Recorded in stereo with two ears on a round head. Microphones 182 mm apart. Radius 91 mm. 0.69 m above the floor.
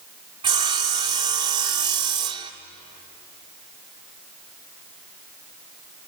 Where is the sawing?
25° right (ahead or behind), 1.3 m.